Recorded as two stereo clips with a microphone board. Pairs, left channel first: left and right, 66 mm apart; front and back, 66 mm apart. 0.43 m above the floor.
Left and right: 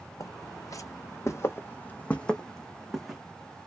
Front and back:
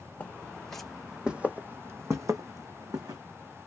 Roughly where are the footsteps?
Left.